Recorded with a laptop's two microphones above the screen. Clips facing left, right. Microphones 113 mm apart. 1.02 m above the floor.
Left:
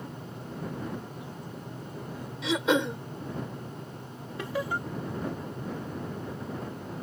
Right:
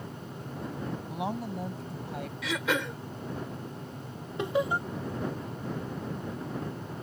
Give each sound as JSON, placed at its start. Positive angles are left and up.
{"t": 1.1, "sound": "a woman speaking", "side_deg": -80}
{"t": 2.4, "sound": "throat clearing", "side_deg": 25}
{"t": 4.4, "sound": "laughter", "side_deg": -20}